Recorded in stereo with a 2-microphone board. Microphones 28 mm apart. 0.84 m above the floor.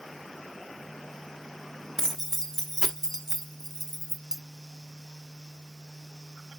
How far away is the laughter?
I don't hear laughter.